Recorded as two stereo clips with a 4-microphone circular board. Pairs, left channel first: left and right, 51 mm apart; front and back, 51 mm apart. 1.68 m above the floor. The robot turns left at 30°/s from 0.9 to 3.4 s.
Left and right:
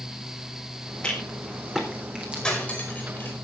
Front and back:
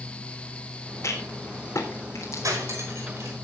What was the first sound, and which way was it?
A rattle, 15° left.